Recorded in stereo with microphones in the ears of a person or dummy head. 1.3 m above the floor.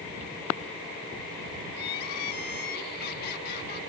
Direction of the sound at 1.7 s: 55° left (ahead or behind).